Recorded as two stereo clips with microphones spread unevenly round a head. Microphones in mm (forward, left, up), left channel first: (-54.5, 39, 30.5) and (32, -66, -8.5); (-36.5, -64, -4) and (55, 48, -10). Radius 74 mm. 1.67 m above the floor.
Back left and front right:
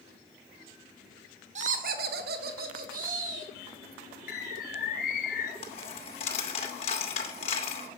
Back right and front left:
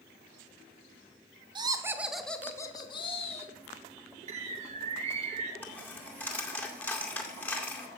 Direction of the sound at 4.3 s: 100° left.